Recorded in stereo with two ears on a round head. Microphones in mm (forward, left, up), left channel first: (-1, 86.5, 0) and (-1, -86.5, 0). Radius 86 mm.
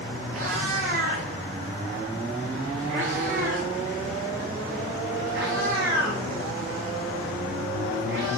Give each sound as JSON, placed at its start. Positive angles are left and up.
{"t": 0.3, "sound": "a cat meowing", "side_deg": -85, "distance_m": 6.0}